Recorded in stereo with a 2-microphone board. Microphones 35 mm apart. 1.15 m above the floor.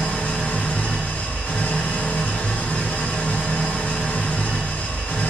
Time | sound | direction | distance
0.0 | an engine running | 85° left | 1.2 m